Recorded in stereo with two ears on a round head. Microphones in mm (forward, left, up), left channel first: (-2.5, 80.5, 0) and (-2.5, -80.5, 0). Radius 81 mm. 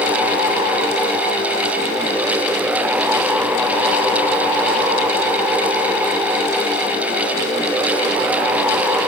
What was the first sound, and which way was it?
Only background noise.